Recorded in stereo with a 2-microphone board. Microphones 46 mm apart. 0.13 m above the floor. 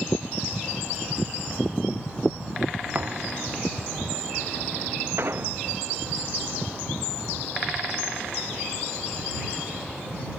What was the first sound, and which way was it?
A thud, 40° right (ahead or behind).